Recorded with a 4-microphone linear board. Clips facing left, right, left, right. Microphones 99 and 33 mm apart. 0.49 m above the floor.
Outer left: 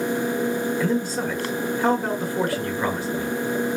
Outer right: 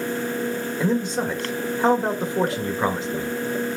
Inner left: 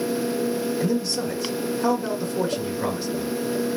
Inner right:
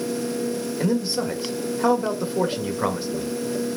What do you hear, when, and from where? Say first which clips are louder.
0.8 s a man speaking: outer right 1 dB, inner right 1 dB; 20° right (ahead or behind), 1.7 m